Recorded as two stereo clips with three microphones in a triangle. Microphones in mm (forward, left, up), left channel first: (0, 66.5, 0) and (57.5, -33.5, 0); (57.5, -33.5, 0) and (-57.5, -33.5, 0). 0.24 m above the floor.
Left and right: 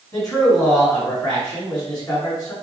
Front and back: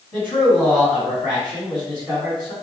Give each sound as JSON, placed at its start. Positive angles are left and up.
{"t": 0.1, "sound": "a man speaking", "azimuth_deg": 80, "distance_m": 1.8}